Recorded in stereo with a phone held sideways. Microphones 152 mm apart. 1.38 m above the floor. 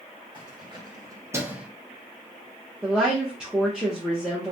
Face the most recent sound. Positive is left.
turn(degrees=-5)  # may be behind; listen again after turning